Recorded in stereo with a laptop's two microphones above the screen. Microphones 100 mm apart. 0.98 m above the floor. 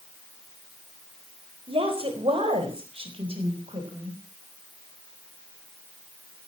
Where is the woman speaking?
75° right (ahead or behind), 4 m; by 4.2 s 85° right, 5.5 m.